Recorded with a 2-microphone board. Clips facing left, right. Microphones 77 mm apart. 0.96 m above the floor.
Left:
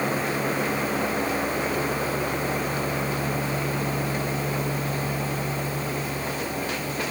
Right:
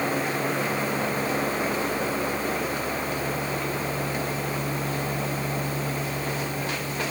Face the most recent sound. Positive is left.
No sound to turn to.